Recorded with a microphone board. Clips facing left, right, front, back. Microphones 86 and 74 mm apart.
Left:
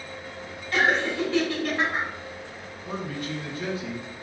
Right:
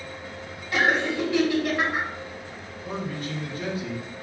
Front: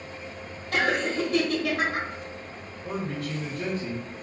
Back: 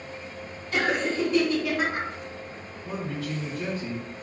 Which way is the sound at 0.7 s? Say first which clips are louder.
Even, even; 15° right.